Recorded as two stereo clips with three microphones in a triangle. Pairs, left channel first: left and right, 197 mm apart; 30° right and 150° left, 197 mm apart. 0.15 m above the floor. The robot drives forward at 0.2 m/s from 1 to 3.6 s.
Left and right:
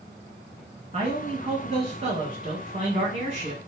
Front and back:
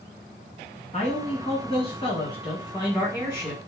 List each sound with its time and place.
0.9 s a man speaking: 60° right, 1.6 m; by 3.6 s 90° right, 1.5 m